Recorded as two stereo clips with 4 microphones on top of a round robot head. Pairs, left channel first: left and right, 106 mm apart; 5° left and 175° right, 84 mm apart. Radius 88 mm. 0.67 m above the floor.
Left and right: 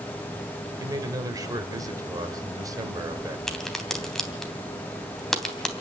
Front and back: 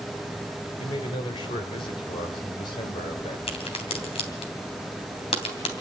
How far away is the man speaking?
About 3 m.